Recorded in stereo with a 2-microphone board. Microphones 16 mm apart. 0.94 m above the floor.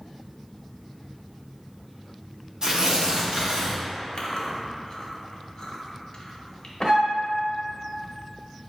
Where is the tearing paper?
50° right (ahead or behind), 0.7 m.